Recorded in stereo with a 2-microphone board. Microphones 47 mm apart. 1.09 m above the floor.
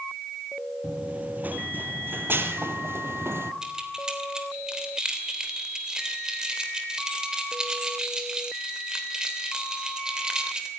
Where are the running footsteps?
25° right (ahead or behind), 1.6 m; by 3.5 s 55° right (ahead or behind), 1.9 m.